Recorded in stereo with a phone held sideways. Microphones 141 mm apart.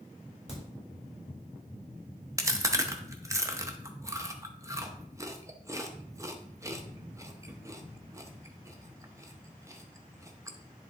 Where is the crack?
45° left (ahead or behind), 3.5 m.